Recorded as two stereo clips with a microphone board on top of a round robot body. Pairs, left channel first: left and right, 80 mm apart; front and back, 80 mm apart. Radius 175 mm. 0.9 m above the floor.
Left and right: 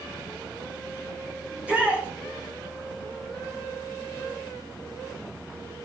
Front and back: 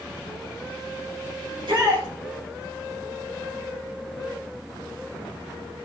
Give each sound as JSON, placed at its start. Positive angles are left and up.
{"t": 1.5, "sound": "a shout", "azimuth_deg": -165, "distance_m": 4.5}